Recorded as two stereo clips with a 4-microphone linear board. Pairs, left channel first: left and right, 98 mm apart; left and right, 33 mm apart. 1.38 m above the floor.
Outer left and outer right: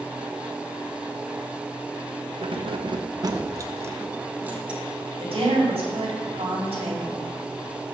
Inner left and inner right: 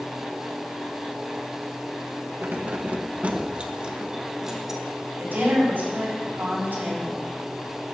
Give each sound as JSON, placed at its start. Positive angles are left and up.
{"t": 2.4, "sound": "keys jangling", "side_deg": -70, "distance_m": 0.7}
{"t": 5.2, "sound": "a woman speaking", "side_deg": -85, "distance_m": 5.0}